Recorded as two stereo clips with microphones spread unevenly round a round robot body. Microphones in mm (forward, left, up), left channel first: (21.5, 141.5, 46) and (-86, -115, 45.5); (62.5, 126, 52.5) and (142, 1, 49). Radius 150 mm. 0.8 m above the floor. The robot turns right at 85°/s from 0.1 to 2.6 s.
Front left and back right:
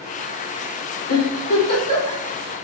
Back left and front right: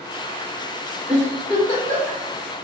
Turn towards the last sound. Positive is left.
turn(degrees=150)